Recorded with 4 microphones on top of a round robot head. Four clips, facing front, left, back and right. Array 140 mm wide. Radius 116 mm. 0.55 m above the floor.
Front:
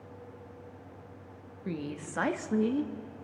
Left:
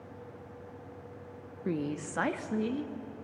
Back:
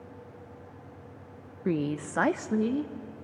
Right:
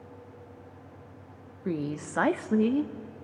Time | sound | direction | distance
1.6 | a woman speaking | 170° right | 0.8 m